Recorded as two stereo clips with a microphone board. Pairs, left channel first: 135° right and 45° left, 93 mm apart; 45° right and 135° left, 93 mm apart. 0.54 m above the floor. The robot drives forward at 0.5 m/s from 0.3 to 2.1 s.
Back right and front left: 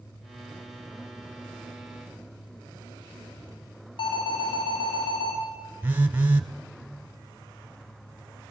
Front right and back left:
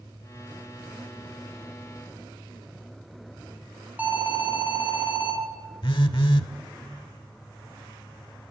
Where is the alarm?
155° right, 4.5 m.